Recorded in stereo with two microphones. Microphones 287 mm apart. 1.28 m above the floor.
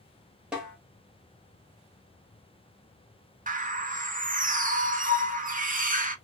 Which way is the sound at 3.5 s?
30° right (ahead or behind).